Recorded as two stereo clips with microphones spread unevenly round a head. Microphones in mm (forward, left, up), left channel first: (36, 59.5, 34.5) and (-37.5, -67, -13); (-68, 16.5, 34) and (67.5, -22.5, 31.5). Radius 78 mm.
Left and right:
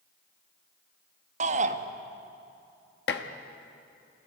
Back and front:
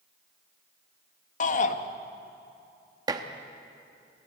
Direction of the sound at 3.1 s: 50° left.